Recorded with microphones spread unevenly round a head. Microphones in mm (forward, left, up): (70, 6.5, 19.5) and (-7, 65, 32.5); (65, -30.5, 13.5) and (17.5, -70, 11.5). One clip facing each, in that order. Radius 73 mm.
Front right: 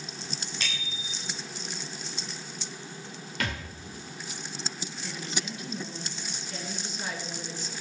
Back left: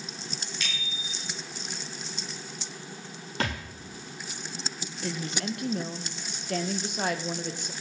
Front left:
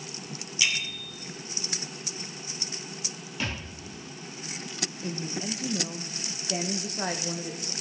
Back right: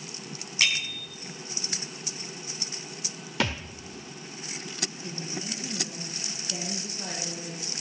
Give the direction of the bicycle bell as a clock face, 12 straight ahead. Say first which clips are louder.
Even, back right 2 dB; 3 o'clock.